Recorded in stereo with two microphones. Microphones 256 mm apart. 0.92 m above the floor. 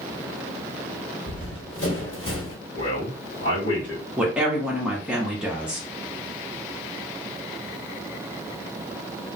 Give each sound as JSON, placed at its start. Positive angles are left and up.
{"t": 1.3, "sound": "running footsteps", "side_deg": 45, "distance_m": 1.6}
{"t": 2.8, "sound": "a man speaking", "side_deg": 45, "distance_m": 1.2}
{"t": 4.2, "sound": "a woman speaking", "side_deg": -5, "distance_m": 0.7}